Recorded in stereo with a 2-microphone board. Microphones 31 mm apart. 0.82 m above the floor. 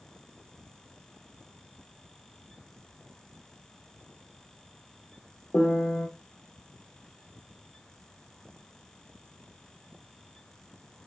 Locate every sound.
5.5 s a piano: 60° left (ahead or behind), 0.6 m